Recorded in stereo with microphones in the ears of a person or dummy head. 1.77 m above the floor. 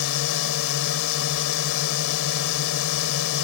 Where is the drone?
75° left (ahead or behind).